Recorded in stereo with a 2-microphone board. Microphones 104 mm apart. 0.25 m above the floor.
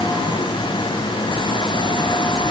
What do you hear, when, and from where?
Only background noise.